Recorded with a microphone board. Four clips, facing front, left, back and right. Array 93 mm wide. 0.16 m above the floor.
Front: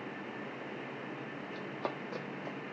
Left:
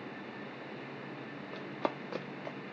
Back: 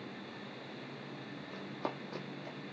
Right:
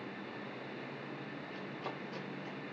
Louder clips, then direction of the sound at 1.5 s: Left 9 dB, front 1 dB; 100° left.